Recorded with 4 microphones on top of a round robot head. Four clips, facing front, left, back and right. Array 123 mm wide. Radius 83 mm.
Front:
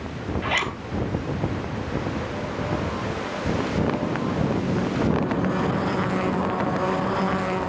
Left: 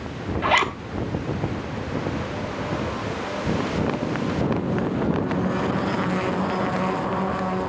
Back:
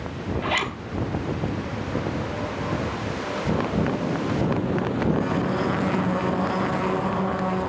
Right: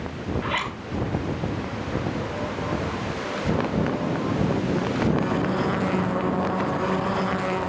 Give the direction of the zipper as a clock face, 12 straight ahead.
9 o'clock.